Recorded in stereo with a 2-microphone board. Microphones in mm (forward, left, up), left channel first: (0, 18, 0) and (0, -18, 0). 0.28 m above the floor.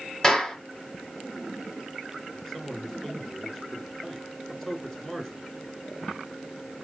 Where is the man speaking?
10° left (ahead or behind), 3.5 m.